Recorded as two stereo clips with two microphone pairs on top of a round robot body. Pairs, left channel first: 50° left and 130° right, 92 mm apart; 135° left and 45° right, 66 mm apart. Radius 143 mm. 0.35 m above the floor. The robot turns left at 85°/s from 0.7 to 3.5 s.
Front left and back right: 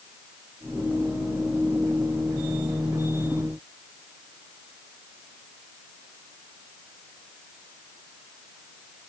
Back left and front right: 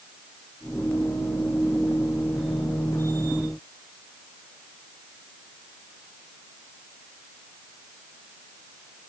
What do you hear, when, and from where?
Only background noise.